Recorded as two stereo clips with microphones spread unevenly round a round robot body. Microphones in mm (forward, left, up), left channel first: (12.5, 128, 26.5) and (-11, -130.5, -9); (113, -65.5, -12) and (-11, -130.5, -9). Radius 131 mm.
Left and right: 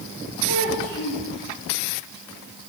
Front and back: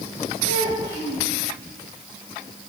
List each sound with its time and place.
0.5 s a child speaking: 150° left, 7 m